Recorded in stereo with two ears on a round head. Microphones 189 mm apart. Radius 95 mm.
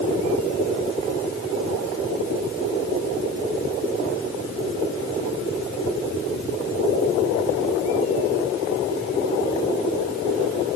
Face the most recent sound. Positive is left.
No sound to turn to.